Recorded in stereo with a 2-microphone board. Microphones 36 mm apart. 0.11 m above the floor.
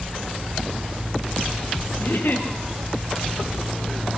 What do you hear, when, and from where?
2.0 s a giggle: 75° left (ahead or behind), 4.5 m